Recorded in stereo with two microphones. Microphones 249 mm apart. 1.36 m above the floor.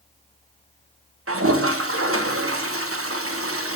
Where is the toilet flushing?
65° right (ahead or behind), 1.5 m.